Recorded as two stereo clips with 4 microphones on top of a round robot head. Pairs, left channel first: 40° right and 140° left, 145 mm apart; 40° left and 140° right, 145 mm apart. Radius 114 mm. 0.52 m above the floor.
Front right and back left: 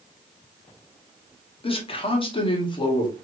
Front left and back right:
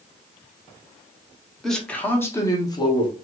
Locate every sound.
1.6 s a man speaking: 45° right, 1.4 m; by 3.1 s 5° left, 1.6 m